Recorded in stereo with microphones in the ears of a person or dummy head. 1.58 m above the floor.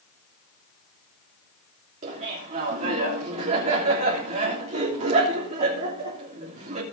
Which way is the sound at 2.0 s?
40° right (ahead or behind).